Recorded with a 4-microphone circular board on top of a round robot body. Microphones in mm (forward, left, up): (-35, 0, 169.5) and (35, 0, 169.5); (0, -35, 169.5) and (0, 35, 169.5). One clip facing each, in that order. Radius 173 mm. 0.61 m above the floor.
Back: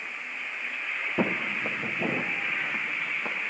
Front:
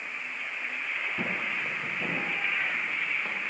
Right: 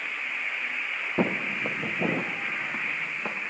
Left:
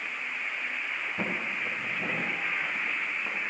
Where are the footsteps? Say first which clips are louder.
Back 8 dB, right 8 dB; 130° right, 1.3 m; by 3.4 s 105° right, 3.5 m.